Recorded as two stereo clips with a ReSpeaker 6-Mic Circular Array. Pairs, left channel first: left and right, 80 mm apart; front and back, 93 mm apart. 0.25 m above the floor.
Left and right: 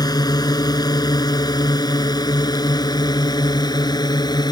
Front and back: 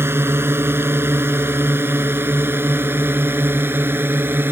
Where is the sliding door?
I don't hear a sliding door.